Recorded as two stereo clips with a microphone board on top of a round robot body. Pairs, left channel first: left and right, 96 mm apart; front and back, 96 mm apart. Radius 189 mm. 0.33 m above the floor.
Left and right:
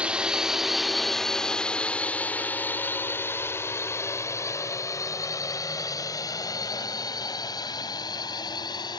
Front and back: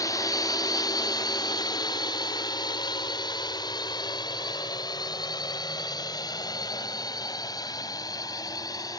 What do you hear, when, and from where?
0.0 s a drone: 15° right; by 9.0 s 45° left